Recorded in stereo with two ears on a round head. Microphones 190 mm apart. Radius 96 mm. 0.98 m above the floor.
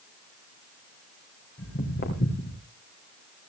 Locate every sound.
1.6 s footsteps: 45° left (ahead or behind), 4.5 m